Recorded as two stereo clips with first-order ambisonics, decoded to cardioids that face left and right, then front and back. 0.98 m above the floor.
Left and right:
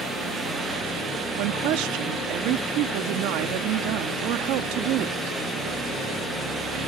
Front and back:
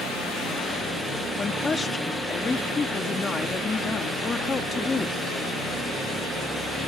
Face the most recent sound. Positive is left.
turn(degrees=-75)